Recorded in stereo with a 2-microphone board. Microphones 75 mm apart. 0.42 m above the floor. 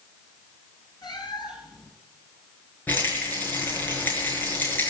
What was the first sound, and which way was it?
A cat meowing, 70° left (ahead or behind).